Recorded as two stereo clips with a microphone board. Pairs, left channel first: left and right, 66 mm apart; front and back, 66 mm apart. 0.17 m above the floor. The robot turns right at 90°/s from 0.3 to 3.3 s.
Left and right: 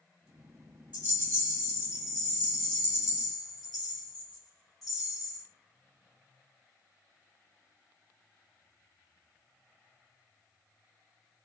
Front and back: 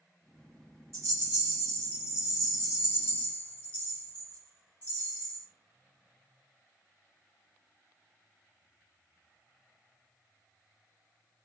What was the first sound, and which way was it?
A rattle, 155° right.